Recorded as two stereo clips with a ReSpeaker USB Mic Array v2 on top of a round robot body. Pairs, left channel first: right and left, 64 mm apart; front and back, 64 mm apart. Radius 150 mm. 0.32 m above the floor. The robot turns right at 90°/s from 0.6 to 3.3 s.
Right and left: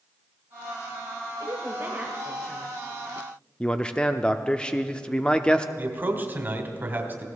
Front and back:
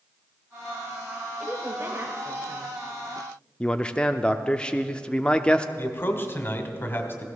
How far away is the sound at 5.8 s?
About 2 m.